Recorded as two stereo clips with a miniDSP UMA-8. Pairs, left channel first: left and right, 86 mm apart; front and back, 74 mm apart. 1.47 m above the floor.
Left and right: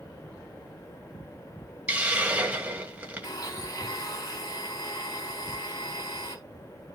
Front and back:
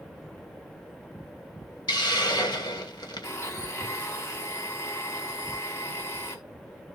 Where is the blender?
45° left, 3 m.